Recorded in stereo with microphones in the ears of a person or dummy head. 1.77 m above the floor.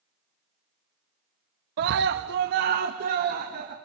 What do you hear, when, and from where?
1.8 s a scream: 55° right (ahead or behind), 1.0 m; by 3.8 s 50° right (ahead or behind), 3 m